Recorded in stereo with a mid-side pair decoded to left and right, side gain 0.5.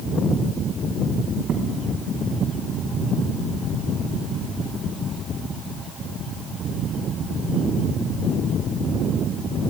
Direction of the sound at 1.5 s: 65° right.